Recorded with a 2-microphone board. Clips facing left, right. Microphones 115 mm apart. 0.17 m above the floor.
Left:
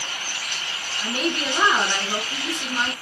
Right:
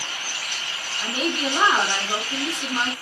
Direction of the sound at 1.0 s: 25° right (ahead or behind).